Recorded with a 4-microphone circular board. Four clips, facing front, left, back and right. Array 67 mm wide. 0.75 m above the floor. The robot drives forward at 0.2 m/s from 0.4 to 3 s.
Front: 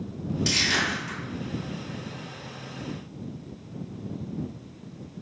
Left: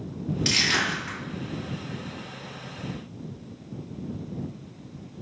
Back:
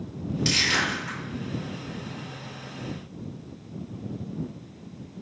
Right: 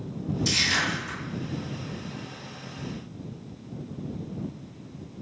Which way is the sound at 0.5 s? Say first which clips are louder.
Left 2 dB, back 1 dB; 105° left.